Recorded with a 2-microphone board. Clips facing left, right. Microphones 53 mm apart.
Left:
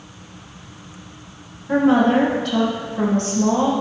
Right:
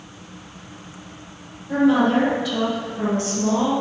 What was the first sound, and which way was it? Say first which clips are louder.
A woman speaking: left 2 dB; 50° left (ahead or behind).